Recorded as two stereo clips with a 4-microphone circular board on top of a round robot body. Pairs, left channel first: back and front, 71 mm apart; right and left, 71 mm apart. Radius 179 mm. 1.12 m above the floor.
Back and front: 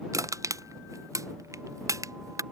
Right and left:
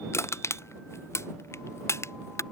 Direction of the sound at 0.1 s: 40° right.